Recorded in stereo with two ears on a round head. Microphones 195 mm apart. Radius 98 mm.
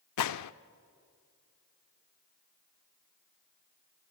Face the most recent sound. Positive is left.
turn(degrees=85)